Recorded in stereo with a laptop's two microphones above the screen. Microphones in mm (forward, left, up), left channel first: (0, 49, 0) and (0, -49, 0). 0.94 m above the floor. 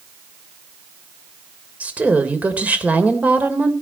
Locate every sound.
1.8 s a woman speaking: 15° right (ahead or behind), 3 m